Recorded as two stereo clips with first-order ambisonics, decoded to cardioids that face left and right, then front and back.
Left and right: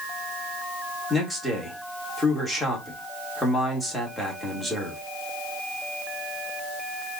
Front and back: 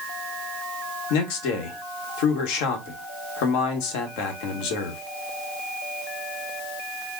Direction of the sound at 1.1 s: Straight ahead.